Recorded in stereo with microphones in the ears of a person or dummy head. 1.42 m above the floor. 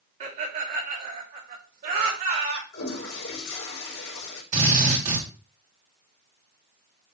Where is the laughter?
45° right (ahead or behind), 3 m; by 2.6 s 50° right (ahead or behind), 4.5 m.